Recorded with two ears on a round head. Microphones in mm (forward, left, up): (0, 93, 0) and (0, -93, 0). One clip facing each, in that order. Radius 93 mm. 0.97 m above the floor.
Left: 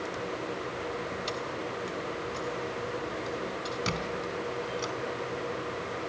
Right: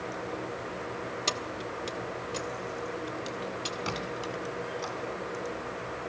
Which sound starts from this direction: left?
A squeak, at 3.9 s.